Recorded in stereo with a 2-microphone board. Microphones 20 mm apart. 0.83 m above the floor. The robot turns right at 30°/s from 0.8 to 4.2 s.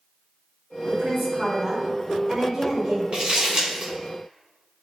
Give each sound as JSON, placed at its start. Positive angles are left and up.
{"t": 0.9, "sound": "a woman speaking", "azimuth_deg": -65, "distance_m": 1.3}
{"t": 3.1, "sound": "crumpling", "side_deg": -50, "distance_m": 1.3}